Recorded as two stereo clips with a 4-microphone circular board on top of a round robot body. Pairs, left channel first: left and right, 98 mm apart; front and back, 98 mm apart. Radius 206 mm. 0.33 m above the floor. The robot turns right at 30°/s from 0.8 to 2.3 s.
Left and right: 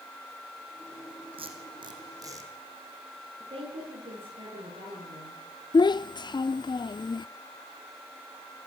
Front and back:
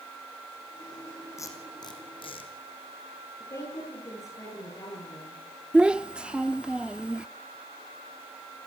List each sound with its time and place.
1.4 s tape being pulled: 60° right, 4 m; by 2.5 s 35° right, 4 m
3.4 s a woman speaking: 60° right, 10 m
5.7 s a child speaking: 105° left, 0.6 m